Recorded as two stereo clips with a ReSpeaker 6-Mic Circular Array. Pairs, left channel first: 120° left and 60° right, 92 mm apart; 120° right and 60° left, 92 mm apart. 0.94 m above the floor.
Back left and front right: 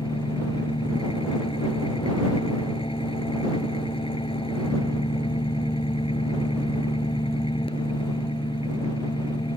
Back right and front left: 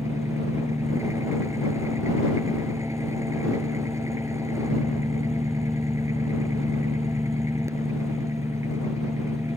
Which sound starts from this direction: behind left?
An engine running, at 0.0 s.